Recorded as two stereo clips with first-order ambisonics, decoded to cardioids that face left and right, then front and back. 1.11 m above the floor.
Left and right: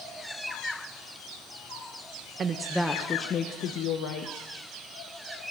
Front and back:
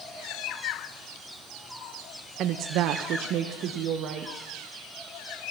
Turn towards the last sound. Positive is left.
turn(degrees=120)